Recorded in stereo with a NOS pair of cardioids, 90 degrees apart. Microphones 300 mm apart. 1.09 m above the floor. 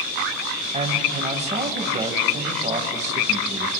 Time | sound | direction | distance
0.7 | a man speaking | 25° right | 5.5 m